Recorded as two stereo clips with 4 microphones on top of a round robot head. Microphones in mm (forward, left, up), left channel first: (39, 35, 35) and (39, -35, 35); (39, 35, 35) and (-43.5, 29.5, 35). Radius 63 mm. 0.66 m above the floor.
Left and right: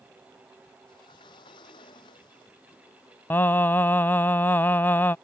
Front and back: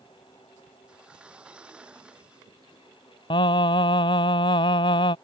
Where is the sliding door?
105° left.